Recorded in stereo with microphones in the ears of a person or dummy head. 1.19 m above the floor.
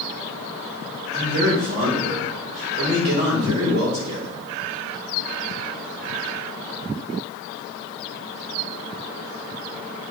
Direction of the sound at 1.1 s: 55° right (ahead or behind).